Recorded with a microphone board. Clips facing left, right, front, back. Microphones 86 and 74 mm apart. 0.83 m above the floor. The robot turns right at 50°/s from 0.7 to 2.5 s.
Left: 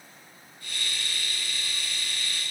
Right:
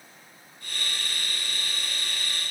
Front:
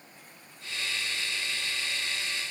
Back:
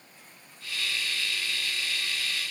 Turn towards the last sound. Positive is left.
No sound to turn to.